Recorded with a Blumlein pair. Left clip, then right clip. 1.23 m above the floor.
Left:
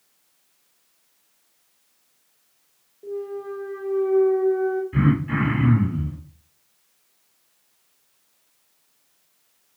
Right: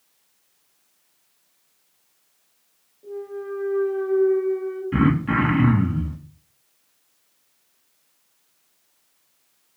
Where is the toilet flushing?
I don't hear a toilet flushing.